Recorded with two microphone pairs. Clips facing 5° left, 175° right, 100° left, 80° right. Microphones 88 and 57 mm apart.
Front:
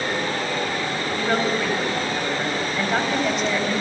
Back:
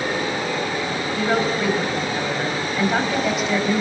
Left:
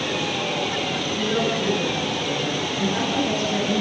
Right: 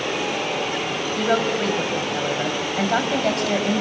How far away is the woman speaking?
About 5.5 m.